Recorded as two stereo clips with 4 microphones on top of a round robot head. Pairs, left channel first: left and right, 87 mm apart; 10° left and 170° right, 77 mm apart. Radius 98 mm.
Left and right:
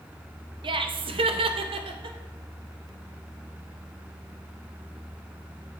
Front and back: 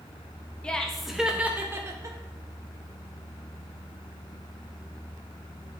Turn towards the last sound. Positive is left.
turn(degrees=-120)